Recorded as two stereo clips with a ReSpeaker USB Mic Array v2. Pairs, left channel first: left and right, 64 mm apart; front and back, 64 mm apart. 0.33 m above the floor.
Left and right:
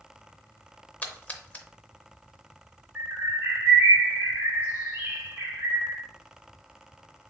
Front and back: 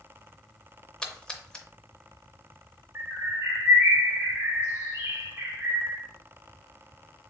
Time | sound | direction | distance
1.0 | a splash | 60° left | 0.5 m
3.0 | a bird | 150° right | 1.7 m